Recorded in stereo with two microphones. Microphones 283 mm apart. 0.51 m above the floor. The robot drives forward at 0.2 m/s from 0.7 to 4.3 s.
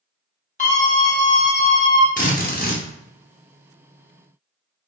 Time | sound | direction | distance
0.6 | a scream | 25° left (ahead or behind) | 1.1 m
2.2 | a drill | 30° left (ahead or behind) | 0.6 m